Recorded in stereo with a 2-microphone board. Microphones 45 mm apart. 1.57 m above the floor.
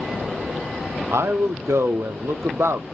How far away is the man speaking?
About 0.5 m.